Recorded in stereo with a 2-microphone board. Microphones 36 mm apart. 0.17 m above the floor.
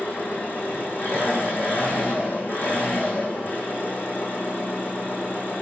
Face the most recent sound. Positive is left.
turn(degrees=85)